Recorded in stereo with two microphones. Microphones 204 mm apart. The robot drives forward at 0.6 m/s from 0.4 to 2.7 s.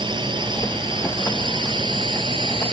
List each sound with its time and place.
0.0 s a drone: 20° right (ahead or behind); by 2.7 s 25° right (ahead or behind)